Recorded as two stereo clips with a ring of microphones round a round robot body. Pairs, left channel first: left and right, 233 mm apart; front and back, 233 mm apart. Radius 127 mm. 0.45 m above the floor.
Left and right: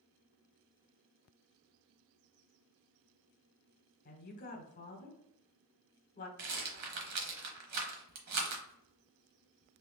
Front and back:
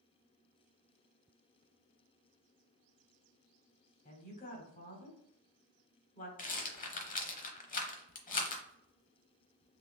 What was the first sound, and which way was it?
A woman speaking, 50° left.